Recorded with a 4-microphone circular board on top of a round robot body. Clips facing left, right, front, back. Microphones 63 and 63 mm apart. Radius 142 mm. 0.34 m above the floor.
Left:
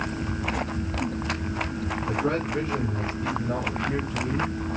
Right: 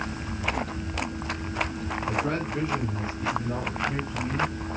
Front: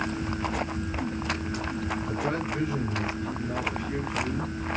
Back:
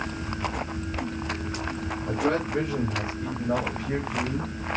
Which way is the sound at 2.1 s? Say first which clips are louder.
Left 2 dB, back 7 dB; 160° left.